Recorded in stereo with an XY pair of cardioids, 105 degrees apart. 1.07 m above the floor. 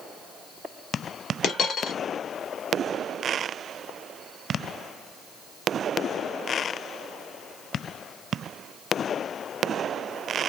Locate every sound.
1.4 s a dropped coin: 60° left, 1.2 m